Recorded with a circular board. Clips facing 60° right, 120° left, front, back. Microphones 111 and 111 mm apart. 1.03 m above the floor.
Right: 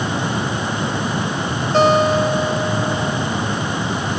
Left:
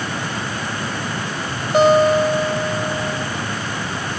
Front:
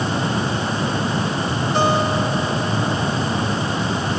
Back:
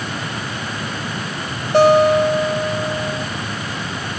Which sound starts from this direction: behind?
A guitar, at 1.7 s.